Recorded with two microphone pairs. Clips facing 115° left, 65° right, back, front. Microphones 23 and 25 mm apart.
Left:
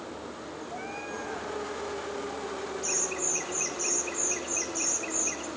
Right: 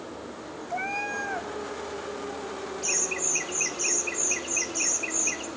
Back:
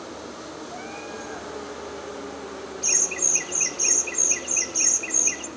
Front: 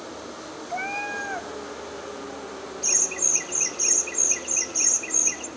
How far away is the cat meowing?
About 1.3 m.